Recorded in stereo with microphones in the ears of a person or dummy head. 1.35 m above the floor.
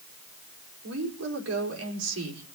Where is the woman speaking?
70° right (ahead or behind), 4.5 m.